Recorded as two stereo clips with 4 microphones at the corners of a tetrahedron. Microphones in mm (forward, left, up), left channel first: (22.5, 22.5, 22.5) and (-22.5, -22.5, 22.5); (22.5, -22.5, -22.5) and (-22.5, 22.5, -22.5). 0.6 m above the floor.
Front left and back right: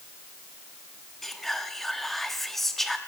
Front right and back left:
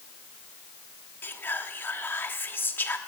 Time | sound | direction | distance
1.2 | whispering | 40° right | 1.1 m